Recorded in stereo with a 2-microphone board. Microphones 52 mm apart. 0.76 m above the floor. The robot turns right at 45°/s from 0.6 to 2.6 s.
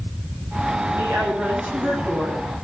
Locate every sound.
0.9 s a woman speaking: 70° right, 7 m; by 2.4 s 5° right, 7 m